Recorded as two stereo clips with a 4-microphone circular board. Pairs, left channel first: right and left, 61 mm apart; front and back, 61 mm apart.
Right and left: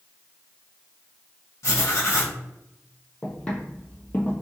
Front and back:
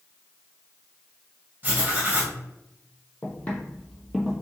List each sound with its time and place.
1.6 s writing: 120° right, 1.4 m
3.2 s footsteps: 30° right, 1.5 m; by 4.3 s 115° right, 1.4 m